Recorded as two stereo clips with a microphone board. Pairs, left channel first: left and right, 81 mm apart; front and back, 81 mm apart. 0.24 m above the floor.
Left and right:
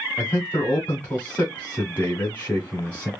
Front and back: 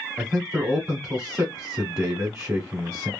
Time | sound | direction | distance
0.2 | a man speaking | 140° left | 1.8 m